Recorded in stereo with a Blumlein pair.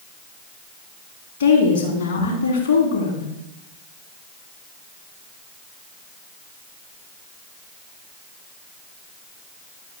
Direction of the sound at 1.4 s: 55° left.